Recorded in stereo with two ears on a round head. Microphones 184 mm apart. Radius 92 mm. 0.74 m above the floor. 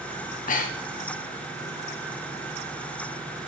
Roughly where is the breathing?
Left.